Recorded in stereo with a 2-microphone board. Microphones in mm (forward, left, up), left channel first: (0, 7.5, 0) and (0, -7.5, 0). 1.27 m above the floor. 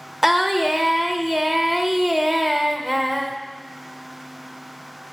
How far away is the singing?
About 0.6 m.